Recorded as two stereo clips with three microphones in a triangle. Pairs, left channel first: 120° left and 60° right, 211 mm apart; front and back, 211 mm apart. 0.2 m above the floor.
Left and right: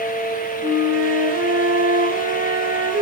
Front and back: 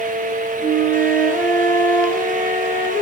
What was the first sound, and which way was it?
A flute, 80° right.